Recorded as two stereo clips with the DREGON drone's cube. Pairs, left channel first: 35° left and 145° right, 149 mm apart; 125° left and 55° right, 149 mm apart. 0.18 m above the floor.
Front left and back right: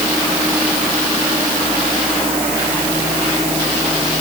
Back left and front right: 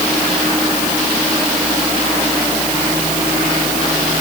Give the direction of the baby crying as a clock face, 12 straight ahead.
No baby crying in this recording.